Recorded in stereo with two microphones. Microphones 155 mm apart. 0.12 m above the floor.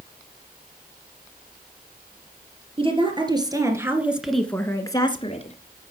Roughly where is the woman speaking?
Right.